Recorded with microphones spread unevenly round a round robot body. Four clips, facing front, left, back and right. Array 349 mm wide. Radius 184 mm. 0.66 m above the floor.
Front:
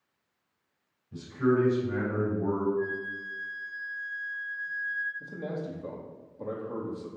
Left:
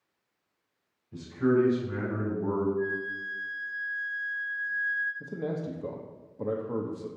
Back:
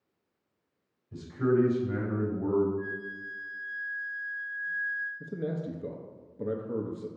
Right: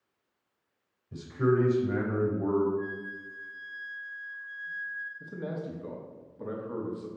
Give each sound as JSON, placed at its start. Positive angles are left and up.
{"t": 1.1, "sound": "a man speaking", "azimuth_deg": -100, "distance_m": 3.5}
{"t": 2.8, "sound": "a flute", "azimuth_deg": -50, "distance_m": 3.0}
{"t": 5.2, "sound": "a man speaking", "azimuth_deg": 130, "distance_m": 0.9}